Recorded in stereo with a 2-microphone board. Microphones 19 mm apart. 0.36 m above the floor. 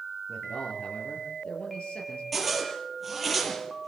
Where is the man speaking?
75° left (ahead or behind), 6 m.